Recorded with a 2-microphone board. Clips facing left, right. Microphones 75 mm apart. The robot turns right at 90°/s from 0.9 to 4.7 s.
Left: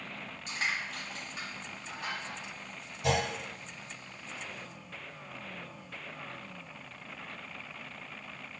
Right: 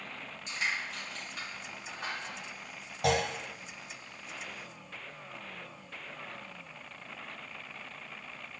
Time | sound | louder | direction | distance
0.5 | crushing | even | 40° left (ahead or behind) | 1.8 m
3.0 | a clunk | right 1 dB | 65° right (ahead or behind) | 0.9 m